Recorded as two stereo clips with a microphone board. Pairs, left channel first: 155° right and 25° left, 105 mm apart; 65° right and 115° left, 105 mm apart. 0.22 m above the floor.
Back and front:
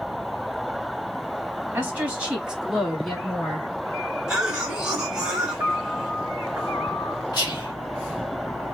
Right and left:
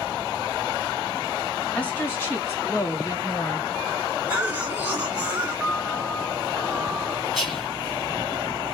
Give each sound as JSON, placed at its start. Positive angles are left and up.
{"t": 1.7, "sound": "a woman speaking", "azimuth_deg": -15, "distance_m": 1.3}
{"t": 4.3, "sound": "a cough", "azimuth_deg": 90, "distance_m": 0.9}
{"t": 5.6, "sound": "a piano", "azimuth_deg": 30, "distance_m": 1.7}
{"t": 7.3, "sound": "whispering", "azimuth_deg": -160, "distance_m": 1.8}